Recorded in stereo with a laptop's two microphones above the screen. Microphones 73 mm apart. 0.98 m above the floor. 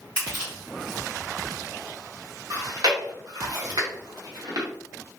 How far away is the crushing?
About 1.6 m.